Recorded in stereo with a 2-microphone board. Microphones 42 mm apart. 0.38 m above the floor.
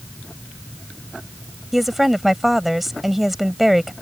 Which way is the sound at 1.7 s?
5° right (ahead or behind).